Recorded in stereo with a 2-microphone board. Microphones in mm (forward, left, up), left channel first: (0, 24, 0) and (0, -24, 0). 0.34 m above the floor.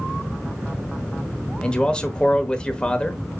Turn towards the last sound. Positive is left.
turn(degrees=20)  # may be behind; listen again after turning